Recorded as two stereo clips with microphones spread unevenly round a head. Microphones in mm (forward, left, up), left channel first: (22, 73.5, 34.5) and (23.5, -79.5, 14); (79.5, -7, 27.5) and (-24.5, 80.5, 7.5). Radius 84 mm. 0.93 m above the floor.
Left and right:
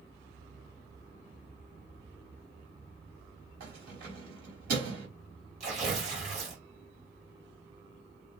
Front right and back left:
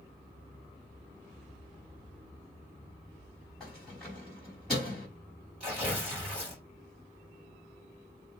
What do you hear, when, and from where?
3.6 s keys jangling: 130° right, 4 m
5.6 s tearing paper: 140° right, 4.5 m